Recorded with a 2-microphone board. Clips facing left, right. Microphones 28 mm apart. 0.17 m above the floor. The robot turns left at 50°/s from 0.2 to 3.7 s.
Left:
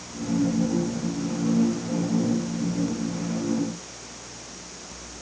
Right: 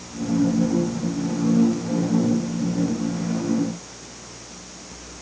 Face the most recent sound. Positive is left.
No sound to turn to.